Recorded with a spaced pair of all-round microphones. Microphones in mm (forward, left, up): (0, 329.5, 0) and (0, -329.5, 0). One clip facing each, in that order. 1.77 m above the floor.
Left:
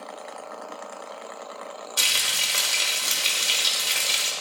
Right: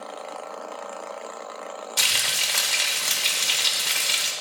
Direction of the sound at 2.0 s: 25° right (ahead or behind).